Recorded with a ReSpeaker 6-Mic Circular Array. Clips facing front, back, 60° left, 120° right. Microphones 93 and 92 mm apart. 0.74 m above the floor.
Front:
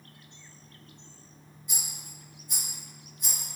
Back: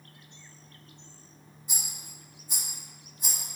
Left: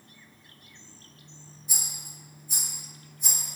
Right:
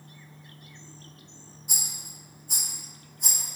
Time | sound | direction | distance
1.7 | a rattle | 120° right | 1.7 m